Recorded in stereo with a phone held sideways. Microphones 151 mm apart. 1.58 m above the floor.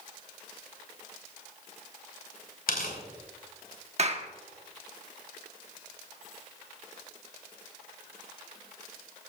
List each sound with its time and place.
2.7 s tearing paper: 75° left (ahead or behind), 4.5 m
4.0 s a clap: 45° right (ahead or behind), 1.2 m